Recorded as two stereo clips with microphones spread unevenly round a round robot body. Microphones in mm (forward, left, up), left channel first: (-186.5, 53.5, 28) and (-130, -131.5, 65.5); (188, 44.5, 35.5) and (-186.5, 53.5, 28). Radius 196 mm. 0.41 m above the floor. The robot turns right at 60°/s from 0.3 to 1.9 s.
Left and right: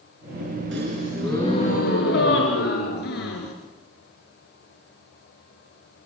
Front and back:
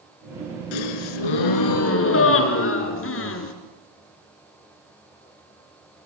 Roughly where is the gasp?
Ahead.